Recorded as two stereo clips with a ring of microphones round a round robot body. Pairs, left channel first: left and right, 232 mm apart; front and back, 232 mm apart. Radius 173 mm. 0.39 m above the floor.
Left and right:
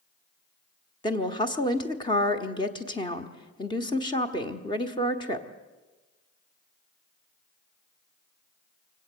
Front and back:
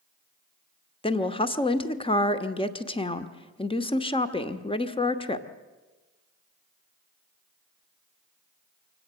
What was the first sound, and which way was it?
A woman speaking, 40° left.